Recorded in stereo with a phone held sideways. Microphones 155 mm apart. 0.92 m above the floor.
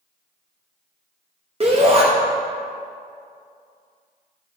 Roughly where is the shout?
Right.